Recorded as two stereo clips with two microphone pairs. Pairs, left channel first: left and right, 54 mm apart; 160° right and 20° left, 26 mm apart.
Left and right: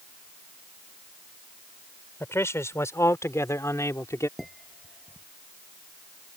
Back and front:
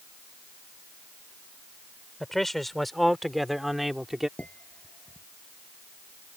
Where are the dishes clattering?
Straight behind.